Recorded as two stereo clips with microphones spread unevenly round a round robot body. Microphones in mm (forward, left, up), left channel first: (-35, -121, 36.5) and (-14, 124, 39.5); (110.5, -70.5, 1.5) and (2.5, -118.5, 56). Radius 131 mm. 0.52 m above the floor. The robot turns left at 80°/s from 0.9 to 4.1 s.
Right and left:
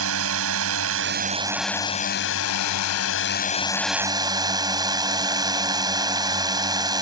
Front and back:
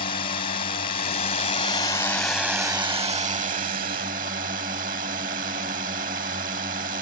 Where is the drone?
55° left; by 7.0 s 160° left.